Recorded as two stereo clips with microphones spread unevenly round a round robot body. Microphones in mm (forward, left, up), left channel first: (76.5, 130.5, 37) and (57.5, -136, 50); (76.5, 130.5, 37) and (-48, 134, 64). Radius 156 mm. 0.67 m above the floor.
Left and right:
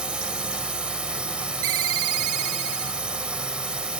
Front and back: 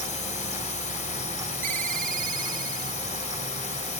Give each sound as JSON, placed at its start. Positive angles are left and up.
{"t": 0.0, "sound": "a drone", "azimuth_deg": -5}
{"t": 1.6, "sound": "a ringtone", "azimuth_deg": -140}